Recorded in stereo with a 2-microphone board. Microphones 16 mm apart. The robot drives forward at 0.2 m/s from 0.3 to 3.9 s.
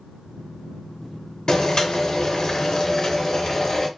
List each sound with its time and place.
1.5 s boiling: 50° left (ahead or behind), 0.6 m; by 3.9 s 35° left (ahead or behind), 0.8 m